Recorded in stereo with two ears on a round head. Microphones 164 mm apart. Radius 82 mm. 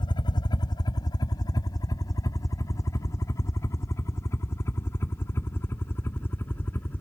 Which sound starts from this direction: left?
A helicopter, at 0.0 s.